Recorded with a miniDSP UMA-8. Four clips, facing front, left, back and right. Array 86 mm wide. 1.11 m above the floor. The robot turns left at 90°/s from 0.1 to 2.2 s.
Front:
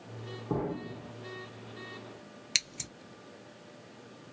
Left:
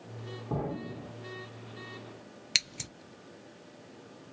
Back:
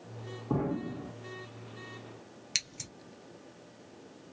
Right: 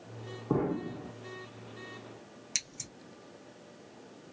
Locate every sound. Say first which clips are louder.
0.5 s an explosion: right 5 dB, back 2 dB; 90° right, 1.2 m; by 1.1 s 150° right, 1.2 m
2.5 s scissors: left 7 dB, front 4 dB; 70° left, 0.5 m